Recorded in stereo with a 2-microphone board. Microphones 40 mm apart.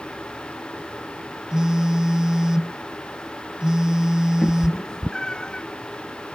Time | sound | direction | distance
1.5 | a phone buzzing | 20° right (ahead or behind) | ?
4.4 | a cat meowing | 15° left (ahead or behind) | ?